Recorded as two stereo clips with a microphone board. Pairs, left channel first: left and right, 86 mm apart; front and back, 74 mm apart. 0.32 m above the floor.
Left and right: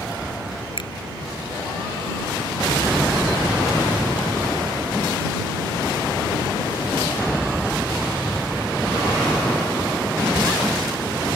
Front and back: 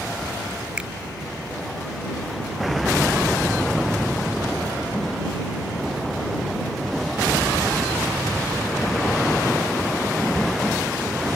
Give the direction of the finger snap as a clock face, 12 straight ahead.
8 o'clock.